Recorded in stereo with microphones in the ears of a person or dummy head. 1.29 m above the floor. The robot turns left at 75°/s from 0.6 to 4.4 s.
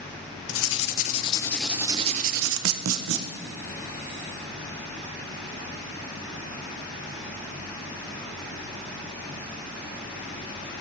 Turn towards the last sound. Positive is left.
turn(degrees=155)